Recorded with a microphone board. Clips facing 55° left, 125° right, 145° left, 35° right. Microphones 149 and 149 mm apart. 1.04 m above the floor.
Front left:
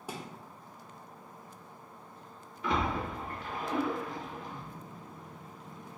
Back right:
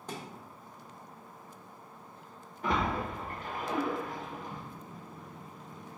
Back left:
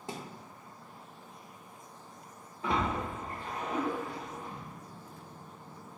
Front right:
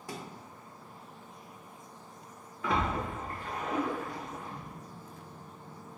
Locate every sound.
0.1 s a thud: 125° left, 0.6 m
2.6 s a splash: 155° right, 1.1 m